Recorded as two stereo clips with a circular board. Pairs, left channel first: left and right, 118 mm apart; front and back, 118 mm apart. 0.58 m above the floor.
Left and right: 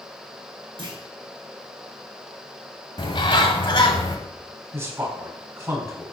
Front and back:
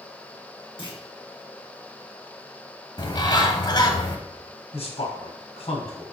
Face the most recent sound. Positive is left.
turn(degrees=-20)